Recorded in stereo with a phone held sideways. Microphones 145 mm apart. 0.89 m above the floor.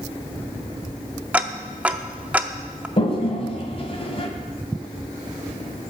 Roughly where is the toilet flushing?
Left.